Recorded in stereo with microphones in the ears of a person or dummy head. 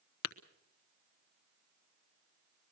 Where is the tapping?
75° left (ahead or behind), 1.0 m.